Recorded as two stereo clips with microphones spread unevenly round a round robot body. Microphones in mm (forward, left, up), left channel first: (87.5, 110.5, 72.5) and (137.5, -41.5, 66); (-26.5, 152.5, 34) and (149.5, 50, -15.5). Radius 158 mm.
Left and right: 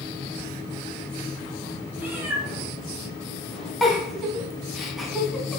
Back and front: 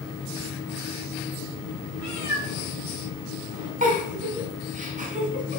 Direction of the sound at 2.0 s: 5° left.